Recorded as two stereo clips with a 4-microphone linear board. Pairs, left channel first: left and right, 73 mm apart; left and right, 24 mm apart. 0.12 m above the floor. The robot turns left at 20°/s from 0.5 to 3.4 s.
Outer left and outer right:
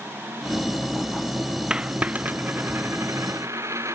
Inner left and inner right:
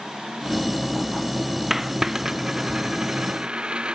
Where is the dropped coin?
15° right (ahead or behind); by 4.0 s 45° right (ahead or behind).